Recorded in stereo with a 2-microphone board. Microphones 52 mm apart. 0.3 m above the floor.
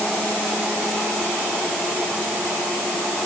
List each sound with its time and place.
Only background noise.